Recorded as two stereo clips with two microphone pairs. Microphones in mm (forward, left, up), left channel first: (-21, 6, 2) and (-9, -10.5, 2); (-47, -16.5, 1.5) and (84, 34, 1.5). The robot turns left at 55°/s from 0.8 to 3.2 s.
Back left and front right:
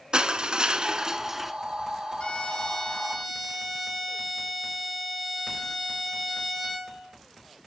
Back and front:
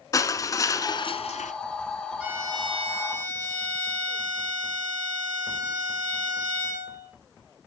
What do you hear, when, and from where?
0.1 s crushing: 90° right, 1.0 m; by 1.5 s 130° right, 1.0 m
2.2 s a violin: 105° left, 3.5 m; by 7.1 s 50° left, 3.5 m